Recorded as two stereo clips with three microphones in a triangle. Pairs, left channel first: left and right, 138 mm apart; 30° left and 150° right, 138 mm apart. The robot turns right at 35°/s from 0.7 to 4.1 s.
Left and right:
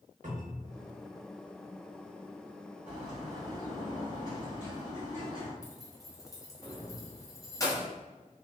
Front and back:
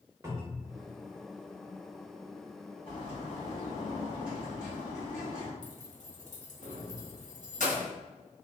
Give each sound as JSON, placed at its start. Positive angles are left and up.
{"t": 0.2, "sound": "a cupboard door", "azimuth_deg": -85, "distance_m": 0.9}
{"t": 2.9, "sound": "a bird", "azimuth_deg": -15, "distance_m": 1.7}
{"t": 5.6, "sound": "keys jangling", "azimuth_deg": 30, "distance_m": 0.7}